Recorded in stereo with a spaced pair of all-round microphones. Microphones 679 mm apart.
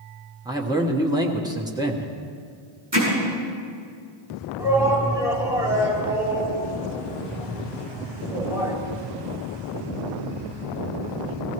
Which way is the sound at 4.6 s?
5° right (ahead or behind).